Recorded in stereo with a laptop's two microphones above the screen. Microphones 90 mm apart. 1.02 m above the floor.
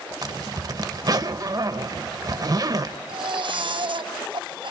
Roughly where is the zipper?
Right.